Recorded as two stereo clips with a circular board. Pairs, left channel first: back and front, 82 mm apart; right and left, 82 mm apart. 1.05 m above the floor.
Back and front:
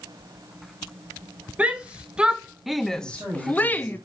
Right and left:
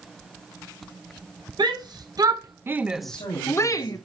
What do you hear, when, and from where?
1.6 s a shout: 70° left, 1.2 m; by 4.0 s 115° right, 0.9 m
3.0 s a man speaking: 70° right, 6 m